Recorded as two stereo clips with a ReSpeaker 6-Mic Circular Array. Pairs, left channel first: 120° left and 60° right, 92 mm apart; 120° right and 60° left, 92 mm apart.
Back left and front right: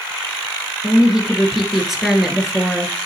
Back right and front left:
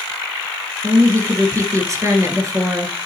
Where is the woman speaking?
25° left, 1.5 m.